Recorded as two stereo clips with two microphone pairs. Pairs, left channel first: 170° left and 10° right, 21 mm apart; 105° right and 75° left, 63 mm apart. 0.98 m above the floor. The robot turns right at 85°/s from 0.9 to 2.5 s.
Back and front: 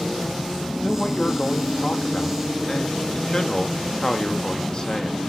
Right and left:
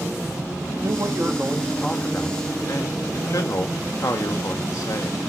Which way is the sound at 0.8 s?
95° left.